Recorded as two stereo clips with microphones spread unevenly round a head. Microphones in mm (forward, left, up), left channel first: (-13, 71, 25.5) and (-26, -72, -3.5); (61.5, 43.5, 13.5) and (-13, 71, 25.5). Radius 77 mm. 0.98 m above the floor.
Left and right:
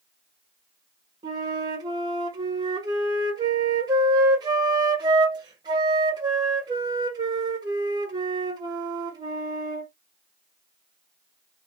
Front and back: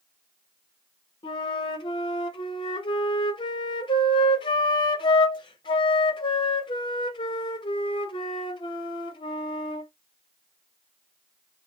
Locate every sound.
1.2 s a flute: 35° right, 0.9 m